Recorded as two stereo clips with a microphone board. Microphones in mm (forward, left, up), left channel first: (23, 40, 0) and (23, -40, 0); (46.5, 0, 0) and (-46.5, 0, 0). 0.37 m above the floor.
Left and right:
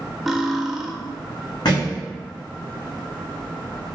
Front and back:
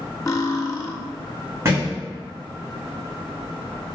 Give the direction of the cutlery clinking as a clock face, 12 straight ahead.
12 o'clock.